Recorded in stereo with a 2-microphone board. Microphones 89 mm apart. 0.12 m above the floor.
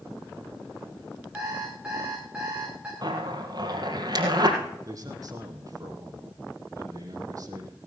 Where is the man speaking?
40° right (ahead or behind), 4.5 m.